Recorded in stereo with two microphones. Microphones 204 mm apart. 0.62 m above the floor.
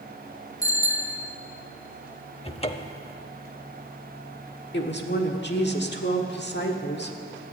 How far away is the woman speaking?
About 1.5 m.